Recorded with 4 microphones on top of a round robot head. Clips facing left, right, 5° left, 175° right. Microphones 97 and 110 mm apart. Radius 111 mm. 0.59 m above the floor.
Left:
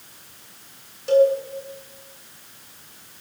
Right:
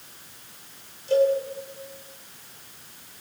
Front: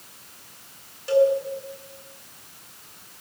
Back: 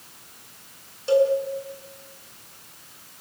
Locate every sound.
1.1 s a cowbell: 120° left, 8 m